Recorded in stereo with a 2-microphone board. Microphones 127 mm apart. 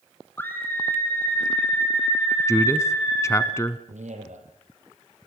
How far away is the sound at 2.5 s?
About 1.1 m.